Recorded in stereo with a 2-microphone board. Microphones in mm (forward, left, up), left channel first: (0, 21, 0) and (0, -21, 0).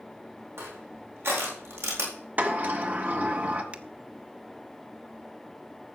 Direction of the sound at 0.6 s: 80° right.